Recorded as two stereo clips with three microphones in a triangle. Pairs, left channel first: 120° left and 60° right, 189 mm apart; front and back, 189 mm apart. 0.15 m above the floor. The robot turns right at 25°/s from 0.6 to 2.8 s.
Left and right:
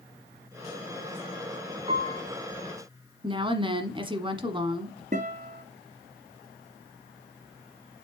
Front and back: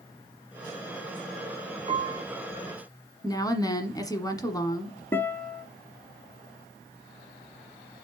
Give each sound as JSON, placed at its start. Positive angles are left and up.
{"t": 1.9, "sound": "a piano", "azimuth_deg": -125, "distance_m": 0.9}
{"t": 3.2, "sound": "a woman speaking", "azimuth_deg": -45, "distance_m": 1.2}
{"t": 5.1, "sound": "a guitar", "azimuth_deg": -75, "distance_m": 1.1}